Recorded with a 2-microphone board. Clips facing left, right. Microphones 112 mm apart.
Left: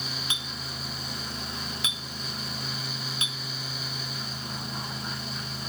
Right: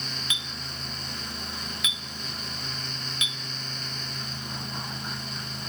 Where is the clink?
35° left (ahead or behind), 0.6 m.